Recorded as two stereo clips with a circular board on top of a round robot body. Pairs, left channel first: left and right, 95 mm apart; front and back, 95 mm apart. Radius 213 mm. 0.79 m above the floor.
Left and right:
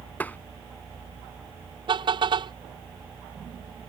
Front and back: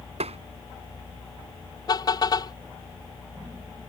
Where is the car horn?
50° right.